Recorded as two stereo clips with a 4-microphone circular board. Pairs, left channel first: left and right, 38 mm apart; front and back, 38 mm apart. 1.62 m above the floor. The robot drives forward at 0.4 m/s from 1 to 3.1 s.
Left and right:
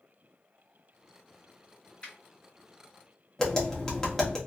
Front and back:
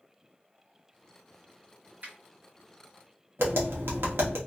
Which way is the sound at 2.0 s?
150° left.